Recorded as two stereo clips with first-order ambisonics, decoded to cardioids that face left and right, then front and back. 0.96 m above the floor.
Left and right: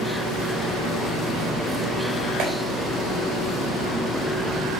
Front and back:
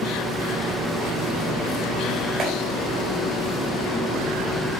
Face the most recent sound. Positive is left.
turn(degrees=-120)